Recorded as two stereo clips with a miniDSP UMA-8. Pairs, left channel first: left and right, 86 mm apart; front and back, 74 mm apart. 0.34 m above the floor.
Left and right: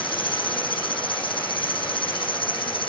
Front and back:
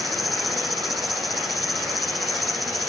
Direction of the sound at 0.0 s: 90° left.